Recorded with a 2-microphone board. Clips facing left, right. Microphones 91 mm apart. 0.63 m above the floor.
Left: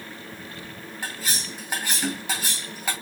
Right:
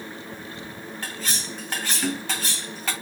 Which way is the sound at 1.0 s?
15° left (ahead or behind).